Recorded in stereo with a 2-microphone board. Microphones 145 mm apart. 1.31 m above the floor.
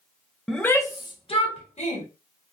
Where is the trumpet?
I don't hear a trumpet.